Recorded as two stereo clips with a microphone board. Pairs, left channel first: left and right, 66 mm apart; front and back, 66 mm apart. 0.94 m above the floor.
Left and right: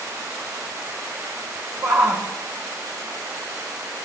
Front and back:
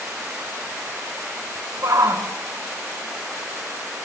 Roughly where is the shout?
Behind right.